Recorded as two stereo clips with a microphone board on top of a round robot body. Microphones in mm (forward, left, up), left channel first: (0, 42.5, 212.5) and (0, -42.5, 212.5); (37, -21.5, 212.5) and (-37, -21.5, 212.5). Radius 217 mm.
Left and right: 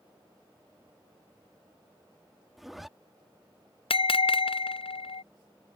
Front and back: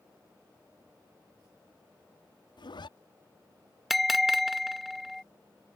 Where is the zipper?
Straight ahead.